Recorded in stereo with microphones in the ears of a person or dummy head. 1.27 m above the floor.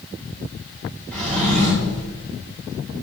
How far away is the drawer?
About 3 m.